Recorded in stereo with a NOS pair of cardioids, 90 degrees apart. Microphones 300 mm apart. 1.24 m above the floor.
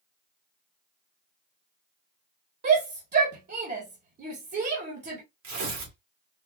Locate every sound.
2.6 s a shout: 35° right, 1.7 m
5.4 s tearing paper: 65° right, 2.5 m